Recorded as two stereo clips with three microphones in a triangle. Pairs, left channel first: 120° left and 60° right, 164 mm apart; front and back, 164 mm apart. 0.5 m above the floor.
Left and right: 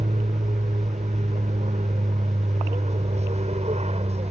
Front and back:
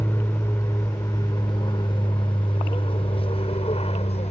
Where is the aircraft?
65° right; by 4.3 s 30° right.